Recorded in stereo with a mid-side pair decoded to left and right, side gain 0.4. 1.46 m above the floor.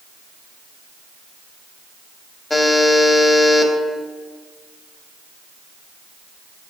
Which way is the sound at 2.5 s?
25° left.